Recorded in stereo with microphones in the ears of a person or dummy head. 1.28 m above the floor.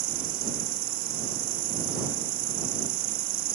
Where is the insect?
40° right (ahead or behind).